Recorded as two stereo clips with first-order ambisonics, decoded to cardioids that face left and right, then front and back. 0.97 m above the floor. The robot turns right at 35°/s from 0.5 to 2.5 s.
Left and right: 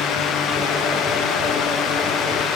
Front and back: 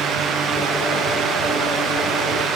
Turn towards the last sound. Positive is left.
No sound to turn to.